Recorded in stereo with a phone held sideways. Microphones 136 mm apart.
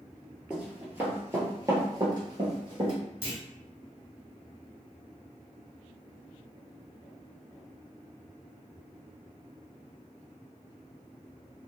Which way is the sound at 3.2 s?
35° left (ahead or behind).